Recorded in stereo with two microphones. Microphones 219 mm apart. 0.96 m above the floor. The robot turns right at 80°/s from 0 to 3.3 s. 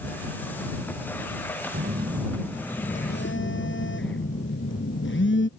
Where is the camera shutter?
I don't hear a camera shutter.